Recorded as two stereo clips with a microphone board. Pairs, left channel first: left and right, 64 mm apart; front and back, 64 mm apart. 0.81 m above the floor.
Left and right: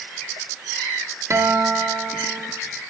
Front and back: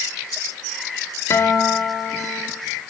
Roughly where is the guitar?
Ahead right.